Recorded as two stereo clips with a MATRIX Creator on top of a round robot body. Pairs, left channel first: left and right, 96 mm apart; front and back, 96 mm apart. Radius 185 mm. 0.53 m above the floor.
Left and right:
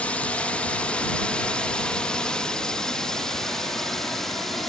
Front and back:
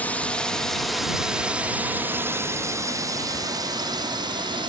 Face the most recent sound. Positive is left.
turn(degrees=175)